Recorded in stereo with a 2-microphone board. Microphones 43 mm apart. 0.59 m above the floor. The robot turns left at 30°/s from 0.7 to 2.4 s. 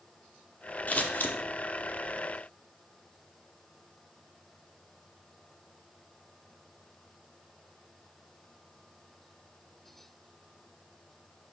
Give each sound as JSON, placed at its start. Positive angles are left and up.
{"t": 0.9, "sound": "scissors", "side_deg": 40, "distance_m": 1.0}